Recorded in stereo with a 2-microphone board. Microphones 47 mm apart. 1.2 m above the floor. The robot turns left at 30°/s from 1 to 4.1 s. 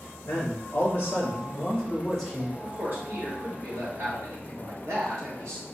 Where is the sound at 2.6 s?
30° right, 2 m; by 5.7 s 75° right, 2 m.